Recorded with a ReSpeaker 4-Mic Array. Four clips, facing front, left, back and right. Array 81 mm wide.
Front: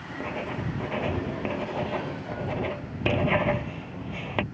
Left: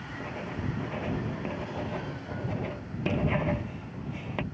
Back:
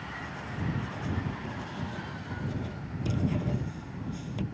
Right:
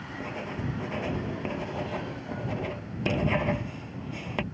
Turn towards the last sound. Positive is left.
turn(degrees=-10)